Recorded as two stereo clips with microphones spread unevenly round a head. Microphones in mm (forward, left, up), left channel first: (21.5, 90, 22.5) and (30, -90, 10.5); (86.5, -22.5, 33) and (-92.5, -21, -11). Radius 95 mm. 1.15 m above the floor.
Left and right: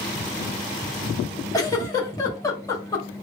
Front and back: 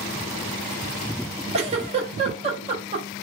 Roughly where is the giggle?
Behind left.